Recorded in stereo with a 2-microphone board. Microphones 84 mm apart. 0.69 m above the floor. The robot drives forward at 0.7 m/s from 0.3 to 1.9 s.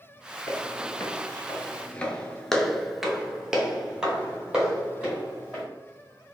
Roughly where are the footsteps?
Left.